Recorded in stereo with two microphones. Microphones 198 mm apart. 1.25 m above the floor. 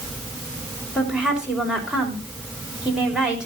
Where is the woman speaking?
5° right (ahead or behind), 4 m.